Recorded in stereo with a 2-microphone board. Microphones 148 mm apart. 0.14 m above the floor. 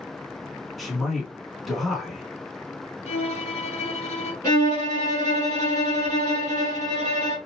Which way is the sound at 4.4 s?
25° left (ahead or behind).